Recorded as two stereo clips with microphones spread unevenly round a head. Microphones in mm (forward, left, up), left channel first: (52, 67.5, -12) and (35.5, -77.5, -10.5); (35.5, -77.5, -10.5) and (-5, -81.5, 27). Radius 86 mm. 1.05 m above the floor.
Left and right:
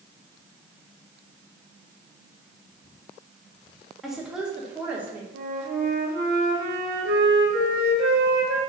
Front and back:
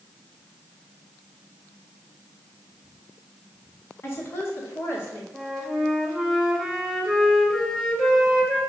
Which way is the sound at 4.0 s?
10° right.